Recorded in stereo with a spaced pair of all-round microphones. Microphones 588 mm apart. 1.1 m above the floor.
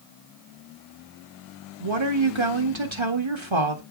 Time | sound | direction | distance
1.8 | a woman speaking | 50° right (ahead or behind) | 1.9 m